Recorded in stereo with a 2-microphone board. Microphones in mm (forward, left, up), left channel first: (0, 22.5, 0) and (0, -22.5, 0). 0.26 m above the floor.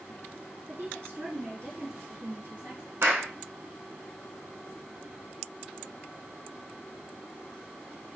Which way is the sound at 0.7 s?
65° right (ahead or behind).